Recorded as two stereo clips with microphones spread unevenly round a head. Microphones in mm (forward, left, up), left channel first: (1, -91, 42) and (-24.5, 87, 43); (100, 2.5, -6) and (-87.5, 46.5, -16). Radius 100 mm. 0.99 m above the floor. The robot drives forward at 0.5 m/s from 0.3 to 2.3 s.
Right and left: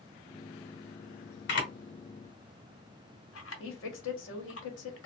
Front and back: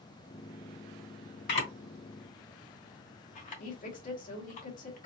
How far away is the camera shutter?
About 1.7 m.